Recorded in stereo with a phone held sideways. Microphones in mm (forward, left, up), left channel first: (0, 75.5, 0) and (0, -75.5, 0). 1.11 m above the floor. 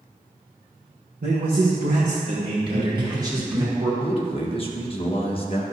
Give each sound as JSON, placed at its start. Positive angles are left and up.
{"t": 1.2, "sound": "a man speaking", "side_deg": -70, "distance_m": 1.0}
{"t": 2.6, "sound": "a man speaking", "side_deg": -80, "distance_m": 2.5}
{"t": 4.0, "sound": "a man speaking", "side_deg": 40, "distance_m": 1.2}